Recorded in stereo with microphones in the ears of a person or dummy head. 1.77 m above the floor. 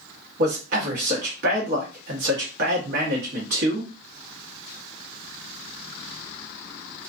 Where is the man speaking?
50° right (ahead or behind), 1.1 m.